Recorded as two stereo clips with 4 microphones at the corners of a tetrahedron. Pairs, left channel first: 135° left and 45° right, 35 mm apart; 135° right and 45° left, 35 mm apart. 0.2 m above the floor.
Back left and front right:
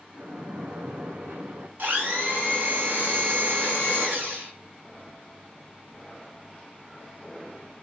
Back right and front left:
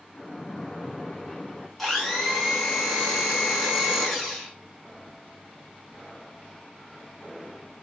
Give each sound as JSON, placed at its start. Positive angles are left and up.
{"t": 0.1, "sound": "a splash", "azimuth_deg": -50, "distance_m": 0.8}
{"t": 1.8, "sound": "a blender", "azimuth_deg": -50, "distance_m": 1.6}